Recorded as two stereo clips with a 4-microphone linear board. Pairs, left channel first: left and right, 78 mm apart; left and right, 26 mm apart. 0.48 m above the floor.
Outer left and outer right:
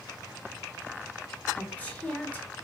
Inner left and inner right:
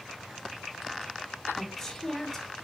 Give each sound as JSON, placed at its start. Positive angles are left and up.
{"t": 1.6, "sound": "a woman speaking", "side_deg": 20, "distance_m": 1.0}